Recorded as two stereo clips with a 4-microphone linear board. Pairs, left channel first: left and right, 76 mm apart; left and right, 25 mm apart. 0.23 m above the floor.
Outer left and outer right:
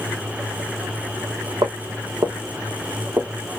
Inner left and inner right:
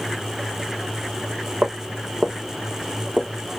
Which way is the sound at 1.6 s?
80° right.